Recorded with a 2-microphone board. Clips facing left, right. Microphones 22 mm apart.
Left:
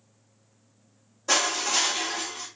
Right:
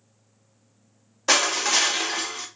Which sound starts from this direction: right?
Crushing, at 1.3 s.